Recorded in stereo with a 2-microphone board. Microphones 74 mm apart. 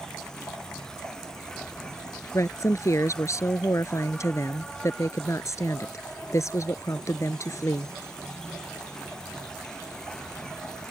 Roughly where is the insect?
Centre.